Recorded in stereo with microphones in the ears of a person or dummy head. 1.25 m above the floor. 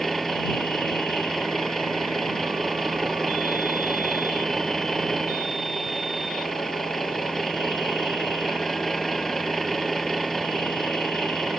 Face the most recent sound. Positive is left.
turn(degrees=0)  # may be behind; listen again after turning